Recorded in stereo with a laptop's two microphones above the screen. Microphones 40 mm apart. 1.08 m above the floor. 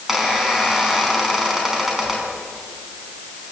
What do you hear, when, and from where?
0.1 s a squeak: 10° right (ahead or behind), 6 m